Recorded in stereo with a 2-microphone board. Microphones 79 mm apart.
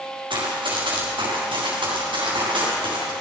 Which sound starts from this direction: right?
Running footsteps, at 0.3 s.